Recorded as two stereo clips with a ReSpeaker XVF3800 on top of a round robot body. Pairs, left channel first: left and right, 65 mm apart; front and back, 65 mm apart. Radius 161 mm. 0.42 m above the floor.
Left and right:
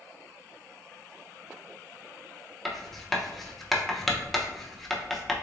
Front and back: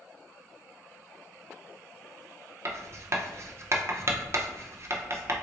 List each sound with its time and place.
2.6 s writing: 175° left, 0.8 m